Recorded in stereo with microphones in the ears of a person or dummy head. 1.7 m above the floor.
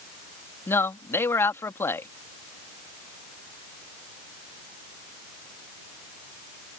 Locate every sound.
0.7 s a man speaking: 15° left (ahead or behind)